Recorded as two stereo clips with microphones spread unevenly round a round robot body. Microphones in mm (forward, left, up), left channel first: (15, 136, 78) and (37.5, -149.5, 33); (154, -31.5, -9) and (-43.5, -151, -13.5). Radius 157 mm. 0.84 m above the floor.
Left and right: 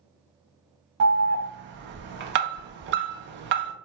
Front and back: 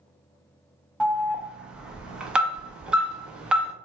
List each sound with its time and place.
1.0 s an alarm: 65° right, 0.5 m